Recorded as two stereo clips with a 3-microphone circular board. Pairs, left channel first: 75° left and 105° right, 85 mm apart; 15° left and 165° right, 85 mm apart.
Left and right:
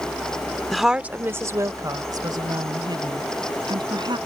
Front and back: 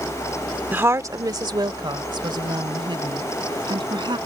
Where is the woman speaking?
155° left; by 4.2 s 140° right.